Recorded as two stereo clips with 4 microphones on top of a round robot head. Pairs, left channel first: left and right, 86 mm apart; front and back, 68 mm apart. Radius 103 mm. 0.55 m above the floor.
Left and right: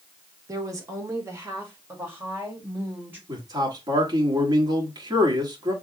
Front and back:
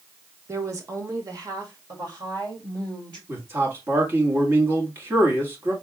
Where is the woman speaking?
135° right, 1.3 m; by 3.2 s 160° right, 3.5 m.